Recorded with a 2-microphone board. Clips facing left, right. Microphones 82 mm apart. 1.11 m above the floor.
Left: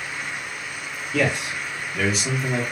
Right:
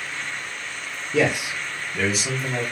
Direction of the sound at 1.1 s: 15° right (ahead or behind).